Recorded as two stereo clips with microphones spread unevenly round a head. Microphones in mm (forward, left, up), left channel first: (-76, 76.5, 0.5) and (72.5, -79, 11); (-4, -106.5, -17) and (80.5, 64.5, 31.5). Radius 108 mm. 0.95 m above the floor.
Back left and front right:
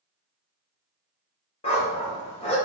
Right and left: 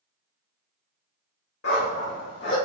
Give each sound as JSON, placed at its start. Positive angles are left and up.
{"t": 1.6, "sound": "a dog barking", "azimuth_deg": -165, "distance_m": 0.9}